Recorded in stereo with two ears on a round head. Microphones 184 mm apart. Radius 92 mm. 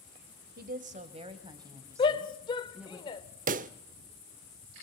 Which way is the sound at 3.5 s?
40° right (ahead or behind).